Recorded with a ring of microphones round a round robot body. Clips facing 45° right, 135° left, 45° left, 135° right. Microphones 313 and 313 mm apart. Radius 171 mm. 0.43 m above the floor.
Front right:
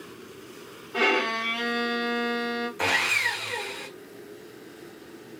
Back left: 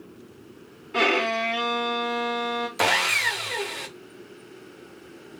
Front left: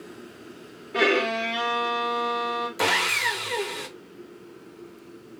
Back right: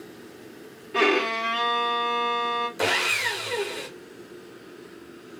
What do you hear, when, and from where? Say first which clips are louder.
0.9 s a violin: back left 1 dB, even; 160° left, 1.9 m
2.8 s sawing: back left 3 dB, back right 3 dB; 125° left, 1.0 m